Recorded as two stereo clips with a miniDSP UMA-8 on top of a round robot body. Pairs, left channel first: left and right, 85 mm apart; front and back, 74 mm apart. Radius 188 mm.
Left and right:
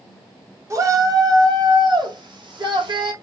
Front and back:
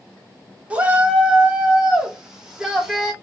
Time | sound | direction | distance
0.7 | a shout | 115° right | 1.3 m